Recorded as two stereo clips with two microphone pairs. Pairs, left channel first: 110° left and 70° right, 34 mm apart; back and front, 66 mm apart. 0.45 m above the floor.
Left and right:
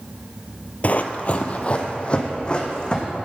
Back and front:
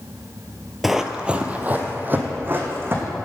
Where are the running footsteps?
85° left, 0.7 m; by 3.0 s 50° left, 2 m.